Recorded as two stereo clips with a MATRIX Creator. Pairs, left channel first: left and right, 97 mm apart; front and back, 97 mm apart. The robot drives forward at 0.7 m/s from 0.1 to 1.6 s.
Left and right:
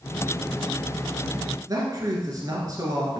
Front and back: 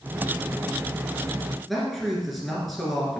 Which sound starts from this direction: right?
A man speaking, at 1.7 s.